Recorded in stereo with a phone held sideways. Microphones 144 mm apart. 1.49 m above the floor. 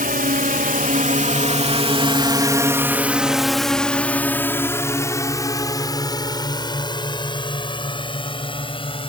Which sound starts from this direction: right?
A drone, at 0.0 s.